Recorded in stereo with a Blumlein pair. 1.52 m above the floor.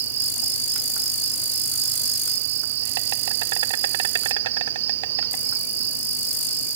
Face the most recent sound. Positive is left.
turn(degrees=-55)